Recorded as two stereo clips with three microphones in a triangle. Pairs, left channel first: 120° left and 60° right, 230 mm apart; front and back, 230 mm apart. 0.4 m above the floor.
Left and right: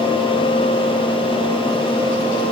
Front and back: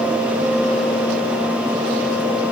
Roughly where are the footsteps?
No footsteps in this recording.